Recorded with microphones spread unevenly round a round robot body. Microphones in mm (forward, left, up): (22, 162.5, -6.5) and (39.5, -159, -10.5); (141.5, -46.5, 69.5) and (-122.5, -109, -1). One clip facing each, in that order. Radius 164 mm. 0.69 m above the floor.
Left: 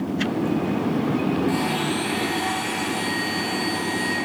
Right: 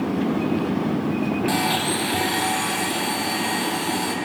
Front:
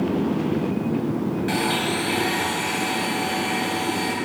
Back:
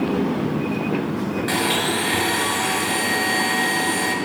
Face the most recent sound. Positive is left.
turn(degrees=-145)